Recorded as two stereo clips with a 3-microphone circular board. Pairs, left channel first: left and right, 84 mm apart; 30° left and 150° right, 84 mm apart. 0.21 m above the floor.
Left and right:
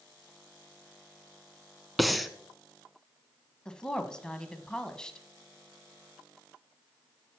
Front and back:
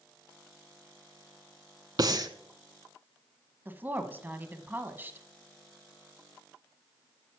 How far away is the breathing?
About 0.7 m.